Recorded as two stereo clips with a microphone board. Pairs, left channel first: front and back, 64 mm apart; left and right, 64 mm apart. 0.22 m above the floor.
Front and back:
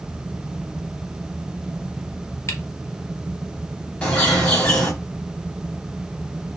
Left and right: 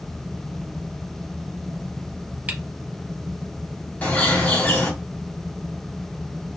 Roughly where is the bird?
Ahead left.